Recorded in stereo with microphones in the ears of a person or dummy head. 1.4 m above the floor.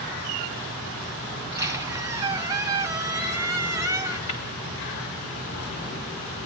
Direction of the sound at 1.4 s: 15° right (ahead or behind).